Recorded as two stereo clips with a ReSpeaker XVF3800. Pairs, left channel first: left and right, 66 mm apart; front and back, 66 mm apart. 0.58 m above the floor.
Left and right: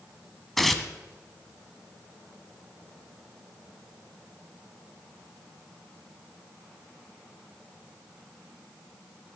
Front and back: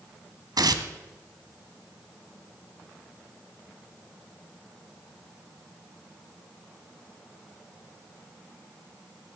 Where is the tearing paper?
Straight behind, 1.1 m.